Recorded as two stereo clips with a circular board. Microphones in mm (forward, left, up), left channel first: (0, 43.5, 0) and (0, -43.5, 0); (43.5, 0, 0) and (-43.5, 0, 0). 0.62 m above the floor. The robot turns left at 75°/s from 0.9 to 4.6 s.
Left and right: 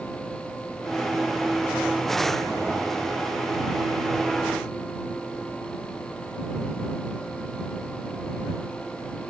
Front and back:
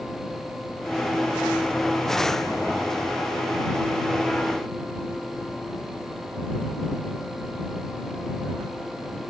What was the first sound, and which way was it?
Only background noise.